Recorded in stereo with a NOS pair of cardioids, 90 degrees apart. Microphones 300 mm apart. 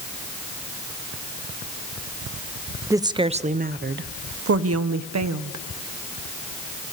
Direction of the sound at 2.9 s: 10° right.